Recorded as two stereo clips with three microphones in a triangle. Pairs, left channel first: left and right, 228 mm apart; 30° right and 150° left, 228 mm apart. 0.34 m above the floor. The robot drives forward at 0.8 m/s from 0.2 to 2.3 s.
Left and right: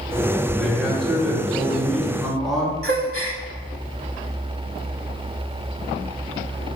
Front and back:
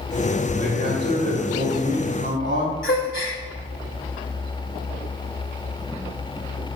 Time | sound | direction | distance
0.6 | a man speaking | straight behind | 2.0 m
2.8 | a gasp | 65° right | 0.8 m